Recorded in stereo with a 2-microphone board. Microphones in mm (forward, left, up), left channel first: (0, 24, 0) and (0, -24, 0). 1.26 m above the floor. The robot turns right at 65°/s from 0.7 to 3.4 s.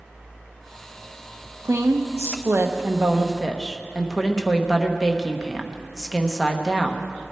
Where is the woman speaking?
110° right, 1.1 m; by 7.1 s 5° left, 1.1 m.